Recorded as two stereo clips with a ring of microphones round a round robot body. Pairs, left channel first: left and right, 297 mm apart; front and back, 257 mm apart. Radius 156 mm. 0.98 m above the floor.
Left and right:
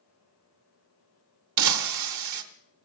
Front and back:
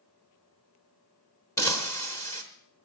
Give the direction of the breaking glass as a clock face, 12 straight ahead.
3 o'clock.